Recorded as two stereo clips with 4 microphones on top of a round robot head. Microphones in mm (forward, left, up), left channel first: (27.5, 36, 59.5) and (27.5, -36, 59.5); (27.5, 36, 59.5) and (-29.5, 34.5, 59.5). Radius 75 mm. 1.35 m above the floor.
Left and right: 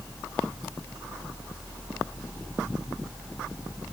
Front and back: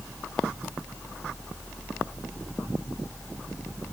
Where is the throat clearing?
I don't hear throat clearing.